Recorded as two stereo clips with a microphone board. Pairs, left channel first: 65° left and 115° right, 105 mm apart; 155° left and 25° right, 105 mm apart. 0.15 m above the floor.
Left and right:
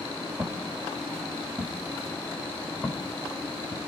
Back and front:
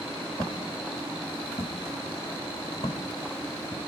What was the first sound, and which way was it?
Footsteps, 170° right.